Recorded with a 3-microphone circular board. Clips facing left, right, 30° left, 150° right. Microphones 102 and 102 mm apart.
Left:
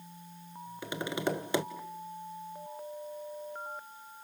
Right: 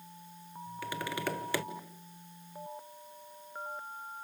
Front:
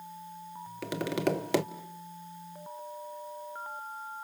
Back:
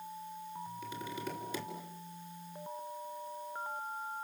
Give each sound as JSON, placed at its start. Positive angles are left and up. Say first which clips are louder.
{"t": 0.8, "sound": "tapping", "louder": "left 3 dB, front 14 dB", "azimuth_deg": 20, "distance_m": 1.0}